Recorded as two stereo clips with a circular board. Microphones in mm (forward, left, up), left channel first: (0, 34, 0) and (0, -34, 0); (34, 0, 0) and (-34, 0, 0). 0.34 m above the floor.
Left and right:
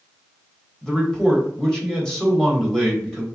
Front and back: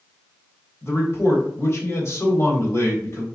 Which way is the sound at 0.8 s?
10° left.